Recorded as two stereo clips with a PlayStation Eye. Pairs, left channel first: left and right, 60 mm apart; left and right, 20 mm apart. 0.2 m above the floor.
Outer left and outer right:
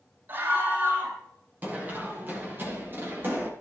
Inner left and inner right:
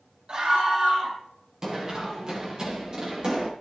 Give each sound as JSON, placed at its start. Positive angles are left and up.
{"t": 0.3, "sound": "a scream", "side_deg": -40, "distance_m": 8.0}
{"t": 1.6, "sound": "running footsteps", "side_deg": -30, "distance_m": 7.0}